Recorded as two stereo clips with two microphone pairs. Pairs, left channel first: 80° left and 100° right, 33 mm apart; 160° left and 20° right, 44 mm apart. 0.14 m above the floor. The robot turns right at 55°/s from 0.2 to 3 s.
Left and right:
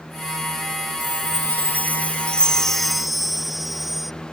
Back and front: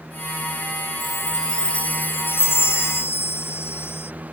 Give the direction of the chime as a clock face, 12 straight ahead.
10 o'clock.